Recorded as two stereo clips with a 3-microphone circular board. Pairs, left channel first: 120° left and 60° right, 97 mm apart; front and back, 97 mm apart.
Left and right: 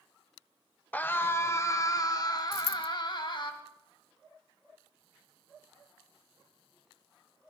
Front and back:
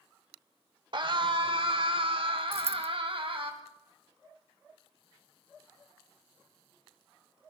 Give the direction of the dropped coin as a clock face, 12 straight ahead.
8 o'clock.